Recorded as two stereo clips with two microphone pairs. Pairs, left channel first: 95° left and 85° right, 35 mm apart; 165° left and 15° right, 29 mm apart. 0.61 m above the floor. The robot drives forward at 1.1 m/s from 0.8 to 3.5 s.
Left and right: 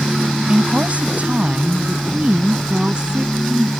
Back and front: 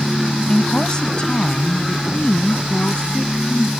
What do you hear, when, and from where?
0.5 s a woman speaking: 135° right; by 3.7 s 150° right